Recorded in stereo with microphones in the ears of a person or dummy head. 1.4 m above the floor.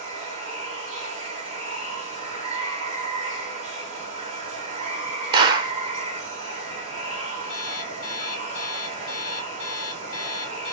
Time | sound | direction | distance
0.0 | running water | 45° right (ahead or behind) | 0.8 m
5.3 | a clap | 20° right (ahead or behind) | 0.6 m
7.5 | an alarm clock | 75° left (ahead or behind) | 1.8 m